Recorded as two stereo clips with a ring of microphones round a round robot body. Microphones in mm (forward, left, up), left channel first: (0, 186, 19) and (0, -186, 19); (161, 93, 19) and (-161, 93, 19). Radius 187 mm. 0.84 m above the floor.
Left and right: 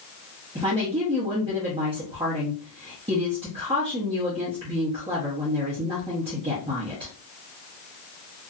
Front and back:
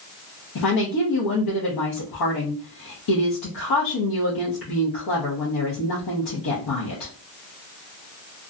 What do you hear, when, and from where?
0.6 s a woman speaking: 15° right, 0.9 m